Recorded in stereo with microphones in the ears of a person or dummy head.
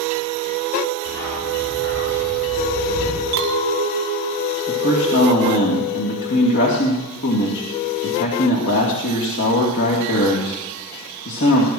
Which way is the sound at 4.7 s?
65° left (ahead or behind).